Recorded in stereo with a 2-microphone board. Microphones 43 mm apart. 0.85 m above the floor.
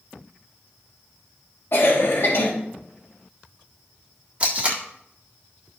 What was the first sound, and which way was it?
A cough, 70° left (ahead or behind).